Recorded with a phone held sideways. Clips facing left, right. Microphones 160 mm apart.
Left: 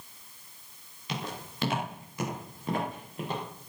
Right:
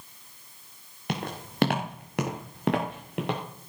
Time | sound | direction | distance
1.1 | footsteps | 60° right (ahead or behind) | 5 m